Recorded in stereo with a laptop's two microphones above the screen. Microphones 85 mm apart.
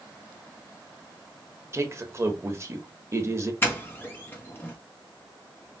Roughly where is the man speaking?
Right.